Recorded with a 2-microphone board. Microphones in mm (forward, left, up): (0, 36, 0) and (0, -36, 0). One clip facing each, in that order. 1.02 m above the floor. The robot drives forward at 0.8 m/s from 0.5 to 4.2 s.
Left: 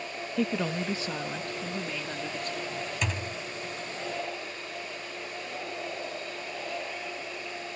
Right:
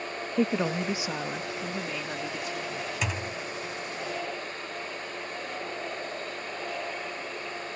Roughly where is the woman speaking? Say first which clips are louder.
Right 3 dB; centre.